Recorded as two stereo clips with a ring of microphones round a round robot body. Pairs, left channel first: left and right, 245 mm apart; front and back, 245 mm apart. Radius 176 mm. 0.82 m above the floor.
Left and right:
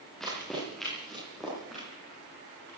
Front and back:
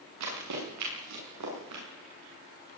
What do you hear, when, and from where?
0.2 s running footsteps: straight behind, 10 m